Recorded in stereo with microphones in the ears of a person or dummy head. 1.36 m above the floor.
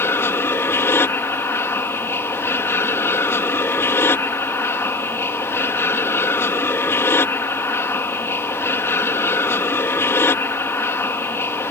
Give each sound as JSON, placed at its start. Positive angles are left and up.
{"t": 0.0, "sound": "an aircraft", "side_deg": 10}